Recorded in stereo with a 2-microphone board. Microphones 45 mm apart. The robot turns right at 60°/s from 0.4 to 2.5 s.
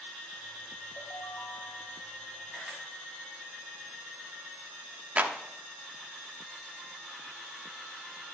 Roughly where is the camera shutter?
Centre.